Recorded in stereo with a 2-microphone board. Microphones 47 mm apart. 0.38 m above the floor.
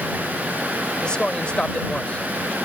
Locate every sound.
1.0 s a man speaking: 20° left (ahead or behind); by 2.5 s 30° left (ahead or behind)